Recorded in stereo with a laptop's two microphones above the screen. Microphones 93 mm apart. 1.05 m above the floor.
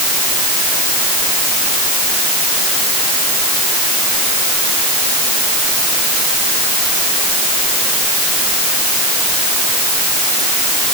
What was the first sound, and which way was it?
Only background noise.